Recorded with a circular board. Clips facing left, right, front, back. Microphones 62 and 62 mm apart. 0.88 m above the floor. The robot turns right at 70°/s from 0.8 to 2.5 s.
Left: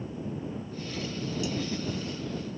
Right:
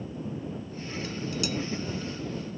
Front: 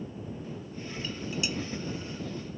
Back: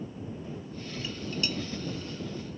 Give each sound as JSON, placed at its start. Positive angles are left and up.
{"t": 1.0, "sound": "dishes clattering", "azimuth_deg": -105}